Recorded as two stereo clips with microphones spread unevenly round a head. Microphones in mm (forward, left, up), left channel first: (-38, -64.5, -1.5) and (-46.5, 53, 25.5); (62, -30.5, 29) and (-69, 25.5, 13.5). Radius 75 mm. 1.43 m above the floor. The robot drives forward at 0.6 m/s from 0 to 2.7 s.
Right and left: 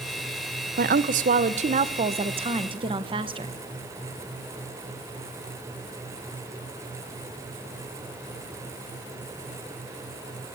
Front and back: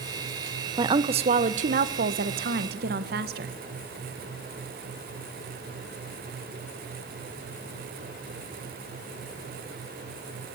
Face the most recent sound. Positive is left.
turn(degrees=140)